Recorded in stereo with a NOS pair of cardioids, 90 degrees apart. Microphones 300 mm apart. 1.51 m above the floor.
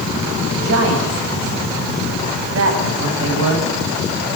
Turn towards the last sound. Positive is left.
turn(degrees=-50)